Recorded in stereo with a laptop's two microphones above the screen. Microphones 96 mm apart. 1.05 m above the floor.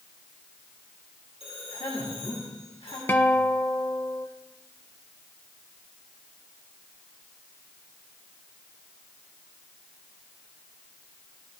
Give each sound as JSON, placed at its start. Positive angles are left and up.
{"t": 1.4, "sound": "a man speaking", "side_deg": 65, "distance_m": 2.5}
{"t": 3.1, "sound": "a guitar", "side_deg": 20, "distance_m": 0.8}